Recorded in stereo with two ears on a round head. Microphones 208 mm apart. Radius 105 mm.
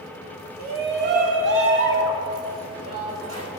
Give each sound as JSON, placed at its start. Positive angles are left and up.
{"t": 0.6, "sound": "a shout", "side_deg": -40, "distance_m": 1.1}